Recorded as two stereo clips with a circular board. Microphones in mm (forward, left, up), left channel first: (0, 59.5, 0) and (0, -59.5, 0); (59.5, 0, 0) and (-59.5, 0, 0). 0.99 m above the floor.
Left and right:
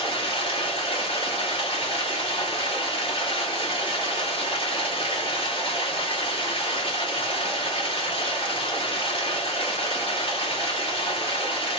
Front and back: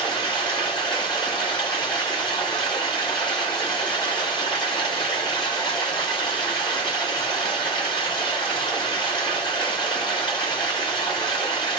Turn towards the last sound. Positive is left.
turn(degrees=50)